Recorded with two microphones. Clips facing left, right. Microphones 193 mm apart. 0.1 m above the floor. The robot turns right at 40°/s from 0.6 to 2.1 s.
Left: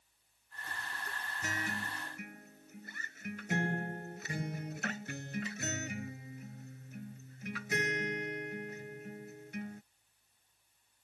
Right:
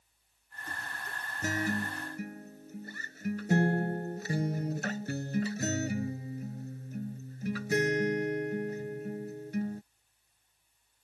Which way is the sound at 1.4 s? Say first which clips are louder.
Right 9 dB; 40° right (ahead or behind).